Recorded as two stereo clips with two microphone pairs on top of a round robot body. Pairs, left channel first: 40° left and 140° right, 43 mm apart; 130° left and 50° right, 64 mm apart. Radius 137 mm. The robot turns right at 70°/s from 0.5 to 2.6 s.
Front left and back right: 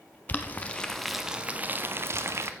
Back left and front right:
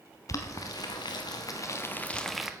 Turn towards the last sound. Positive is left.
turn(degrees=-125)